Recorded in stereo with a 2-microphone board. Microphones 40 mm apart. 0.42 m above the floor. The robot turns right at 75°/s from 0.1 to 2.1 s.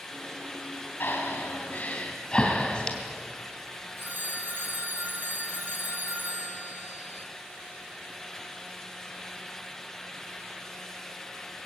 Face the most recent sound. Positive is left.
turn(degrees=-55)  # may be behind; listen again after turning